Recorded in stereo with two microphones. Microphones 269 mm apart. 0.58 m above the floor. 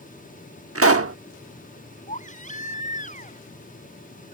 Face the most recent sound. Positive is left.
turn(degrees=30)  # may be behind; listen again after turning